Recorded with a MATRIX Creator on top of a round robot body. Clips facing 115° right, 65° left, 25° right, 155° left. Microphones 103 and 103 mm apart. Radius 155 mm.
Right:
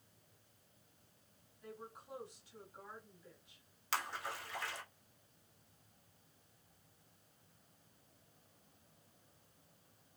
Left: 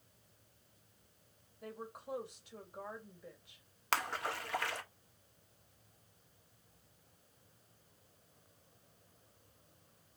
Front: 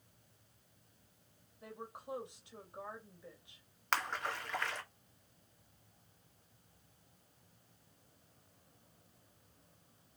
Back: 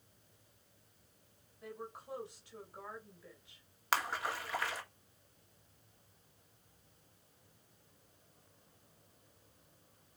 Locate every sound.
1.6 s a woman speaking: 45° left, 3.5 m
3.9 s a splash: 75° left, 2.0 m